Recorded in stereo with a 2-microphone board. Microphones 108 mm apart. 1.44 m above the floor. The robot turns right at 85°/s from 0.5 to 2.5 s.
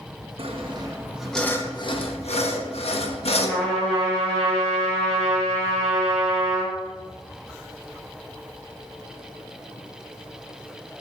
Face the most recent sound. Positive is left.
turn(degrees=5)  # may be behind; listen again after turning